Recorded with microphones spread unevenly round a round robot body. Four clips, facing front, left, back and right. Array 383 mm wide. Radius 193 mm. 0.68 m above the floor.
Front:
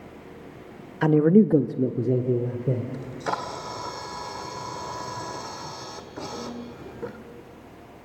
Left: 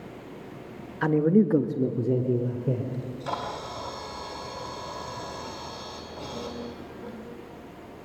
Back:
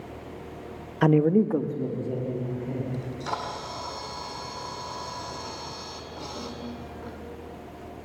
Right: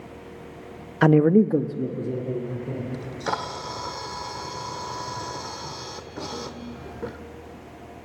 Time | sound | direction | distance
1.0 | a man speaking | 95° right | 0.7 m
2.9 | a camera shutter | 50° right | 2 m